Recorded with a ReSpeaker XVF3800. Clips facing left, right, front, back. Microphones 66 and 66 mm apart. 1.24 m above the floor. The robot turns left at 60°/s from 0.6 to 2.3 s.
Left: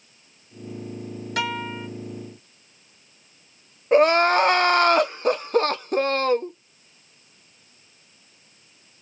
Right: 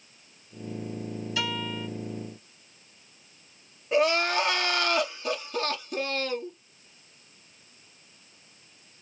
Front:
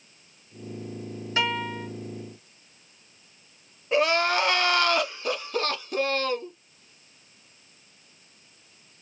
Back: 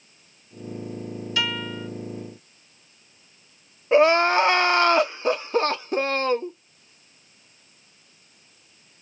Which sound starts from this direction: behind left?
Crying, at 3.9 s.